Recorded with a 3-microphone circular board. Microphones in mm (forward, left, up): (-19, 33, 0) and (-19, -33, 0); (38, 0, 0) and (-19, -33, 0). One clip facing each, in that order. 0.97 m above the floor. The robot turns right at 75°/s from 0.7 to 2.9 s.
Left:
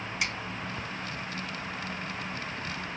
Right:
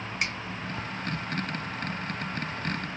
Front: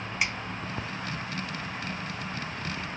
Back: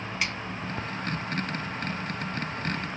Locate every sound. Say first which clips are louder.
0.2 s a finger snap: right 1 dB, front 1 dB; 45° right, 1.6 m